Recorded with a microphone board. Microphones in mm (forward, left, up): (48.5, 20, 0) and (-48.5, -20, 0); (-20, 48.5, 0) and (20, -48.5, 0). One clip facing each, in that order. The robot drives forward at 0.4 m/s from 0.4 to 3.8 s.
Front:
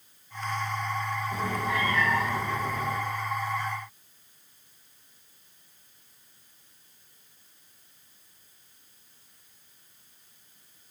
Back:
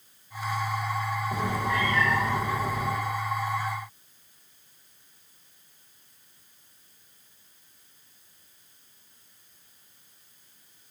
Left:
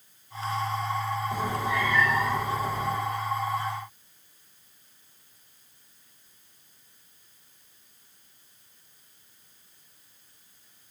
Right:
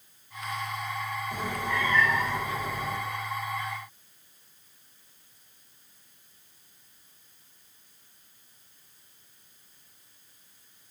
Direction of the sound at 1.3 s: 170° right.